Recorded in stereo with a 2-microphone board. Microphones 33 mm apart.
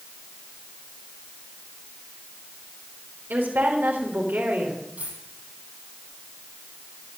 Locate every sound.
3.3 s a woman speaking: 80° right, 3.5 m
5.0 s a dropped coin: 50° right (ahead or behind), 8.5 m